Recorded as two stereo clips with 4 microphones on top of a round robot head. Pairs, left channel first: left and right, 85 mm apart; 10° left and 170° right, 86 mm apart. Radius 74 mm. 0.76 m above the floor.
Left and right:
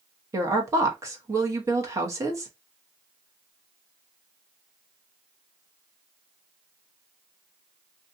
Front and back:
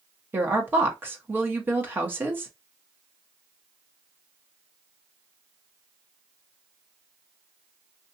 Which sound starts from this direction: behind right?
A woman speaking, at 0.3 s.